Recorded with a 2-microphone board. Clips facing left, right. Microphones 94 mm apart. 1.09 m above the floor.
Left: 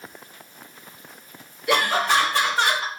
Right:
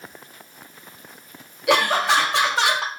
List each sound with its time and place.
1.7 s laughter: 75° right (ahead or behind), 1.7 m; by 2.9 s 85° right, 0.9 m